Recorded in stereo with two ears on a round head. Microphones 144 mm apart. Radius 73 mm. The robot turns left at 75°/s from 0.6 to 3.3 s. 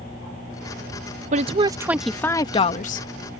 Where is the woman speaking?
125° right; by 3.1 s 105° left.